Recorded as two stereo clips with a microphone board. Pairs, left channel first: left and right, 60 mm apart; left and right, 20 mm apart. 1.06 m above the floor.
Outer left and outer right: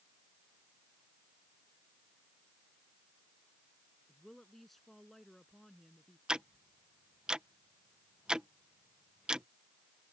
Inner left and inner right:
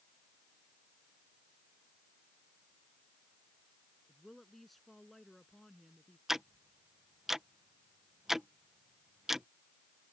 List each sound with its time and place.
4.1 s a woman speaking: 5° left (ahead or behind)
6.3 s ticking: 15° right (ahead or behind)